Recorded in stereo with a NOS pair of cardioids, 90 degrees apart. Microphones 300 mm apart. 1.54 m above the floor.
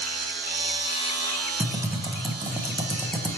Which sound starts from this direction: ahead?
Typing on a keyboard, at 1.6 s.